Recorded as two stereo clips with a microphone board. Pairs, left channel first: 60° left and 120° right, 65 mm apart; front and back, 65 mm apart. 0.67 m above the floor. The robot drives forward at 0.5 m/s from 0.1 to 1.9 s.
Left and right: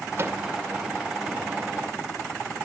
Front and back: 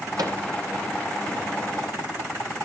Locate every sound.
0.2 s a microwave: 170° right, 2 m